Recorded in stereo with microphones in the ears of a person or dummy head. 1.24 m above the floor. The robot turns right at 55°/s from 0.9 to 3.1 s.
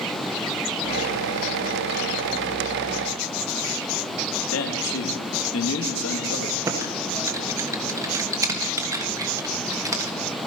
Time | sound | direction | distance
4.5 | a man speaking | 75° left (ahead or behind) | 2 m
6.7 | typing on a keyboard | 20° right (ahead or behind) | 1.3 m